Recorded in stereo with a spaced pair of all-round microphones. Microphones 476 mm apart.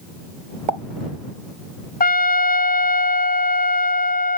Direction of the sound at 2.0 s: 20° left (ahead or behind).